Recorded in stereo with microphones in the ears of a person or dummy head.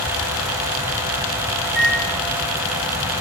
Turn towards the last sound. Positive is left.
turn(degrees=-55)  # may be behind; listen again after turning